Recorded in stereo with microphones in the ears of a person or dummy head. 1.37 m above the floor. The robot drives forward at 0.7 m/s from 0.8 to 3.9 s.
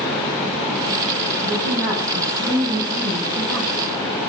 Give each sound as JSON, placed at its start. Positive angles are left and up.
{"t": 1.4, "sound": "a woman speaking", "side_deg": -20, "distance_m": 7.5}